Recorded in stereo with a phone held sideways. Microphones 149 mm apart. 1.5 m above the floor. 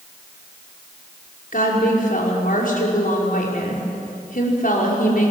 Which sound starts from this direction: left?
A woman speaking, at 1.5 s.